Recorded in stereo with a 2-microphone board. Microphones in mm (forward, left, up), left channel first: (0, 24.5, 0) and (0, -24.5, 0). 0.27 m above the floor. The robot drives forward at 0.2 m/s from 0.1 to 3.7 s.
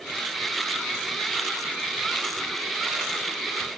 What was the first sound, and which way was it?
Only background noise.